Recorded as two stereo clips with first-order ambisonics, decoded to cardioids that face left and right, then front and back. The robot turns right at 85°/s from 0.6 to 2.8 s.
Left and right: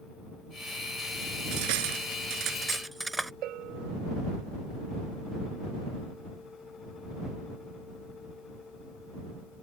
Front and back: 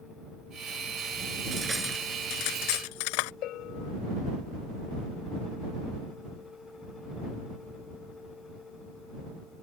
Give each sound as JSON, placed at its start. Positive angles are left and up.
{"t": 1.5, "sound": "cutlery clinking", "azimuth_deg": -115}
{"t": 3.4, "sound": "a bell", "azimuth_deg": -45}